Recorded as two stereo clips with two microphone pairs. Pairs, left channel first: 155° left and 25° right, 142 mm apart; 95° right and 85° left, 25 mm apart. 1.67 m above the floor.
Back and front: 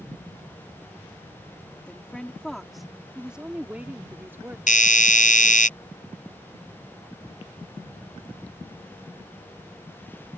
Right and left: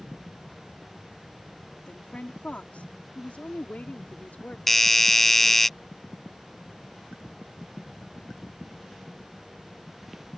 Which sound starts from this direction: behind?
A doorbell, at 4.7 s.